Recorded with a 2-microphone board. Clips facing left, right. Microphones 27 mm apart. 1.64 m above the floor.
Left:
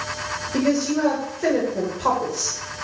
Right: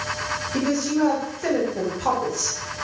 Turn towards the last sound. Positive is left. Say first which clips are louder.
# left 2 dB
turn(degrees=65)  # may be behind; listen again after turning